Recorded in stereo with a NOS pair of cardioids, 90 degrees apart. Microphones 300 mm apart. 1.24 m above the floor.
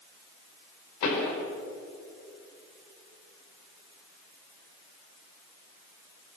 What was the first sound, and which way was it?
A pop, 65° left.